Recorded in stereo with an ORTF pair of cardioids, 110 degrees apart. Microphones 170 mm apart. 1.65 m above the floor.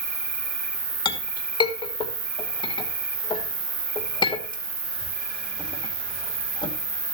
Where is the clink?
30° left, 2.5 m.